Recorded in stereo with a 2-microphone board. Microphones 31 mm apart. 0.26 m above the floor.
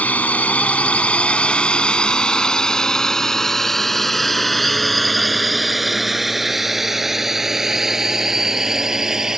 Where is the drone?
55° left (ahead or behind); by 9.4 s 15° right (ahead or behind).